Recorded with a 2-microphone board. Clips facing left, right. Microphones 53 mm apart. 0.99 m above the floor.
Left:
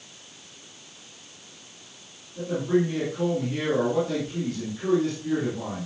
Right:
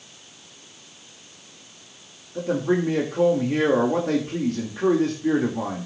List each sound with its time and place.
2.4 s a man speaking: 60° right (ahead or behind), 2 m